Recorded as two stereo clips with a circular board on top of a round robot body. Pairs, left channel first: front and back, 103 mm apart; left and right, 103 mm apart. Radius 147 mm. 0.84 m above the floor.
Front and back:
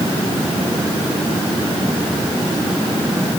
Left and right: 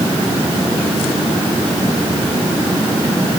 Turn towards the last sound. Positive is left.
No sound to turn to.